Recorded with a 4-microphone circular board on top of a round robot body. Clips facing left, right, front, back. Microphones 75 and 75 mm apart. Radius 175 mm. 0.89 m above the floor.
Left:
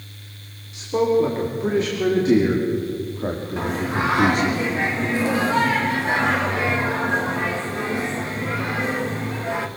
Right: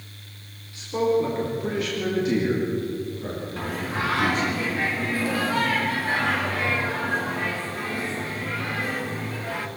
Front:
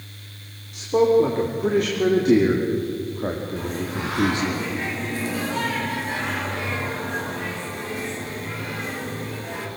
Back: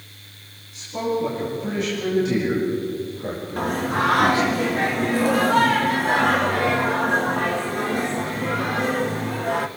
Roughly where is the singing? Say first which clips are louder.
Left 5 dB, back 6 dB; behind.